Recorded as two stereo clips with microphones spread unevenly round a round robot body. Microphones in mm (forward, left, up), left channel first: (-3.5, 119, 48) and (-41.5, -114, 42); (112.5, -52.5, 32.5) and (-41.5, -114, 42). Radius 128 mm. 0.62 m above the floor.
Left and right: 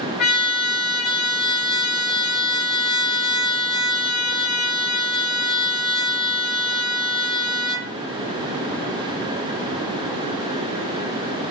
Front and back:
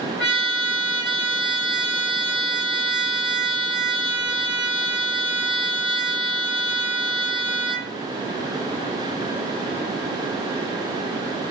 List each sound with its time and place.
0.2 s a trumpet: 95° left, 2.5 m